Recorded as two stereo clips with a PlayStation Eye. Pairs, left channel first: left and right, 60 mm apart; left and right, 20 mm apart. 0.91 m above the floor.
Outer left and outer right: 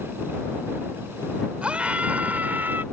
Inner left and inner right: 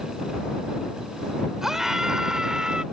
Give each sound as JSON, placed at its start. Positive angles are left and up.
{"t": 1.6, "sound": "a scream", "side_deg": -20}